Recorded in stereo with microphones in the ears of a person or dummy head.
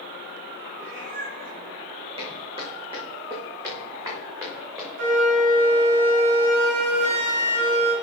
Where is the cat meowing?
50° right (ahead or behind), 4.5 m.